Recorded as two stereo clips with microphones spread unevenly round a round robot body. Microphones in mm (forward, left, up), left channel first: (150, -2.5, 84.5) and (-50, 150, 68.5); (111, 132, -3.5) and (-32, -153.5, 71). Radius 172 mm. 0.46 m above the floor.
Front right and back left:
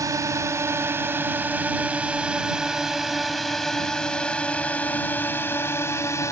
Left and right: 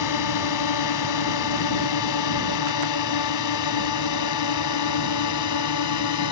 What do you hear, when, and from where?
0.0 s a drone: 65° left; by 6.3 s 40° left